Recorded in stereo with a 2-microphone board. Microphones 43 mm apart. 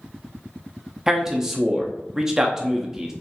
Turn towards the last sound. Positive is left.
turn(degrees=-10)  # may be behind; listen again after turning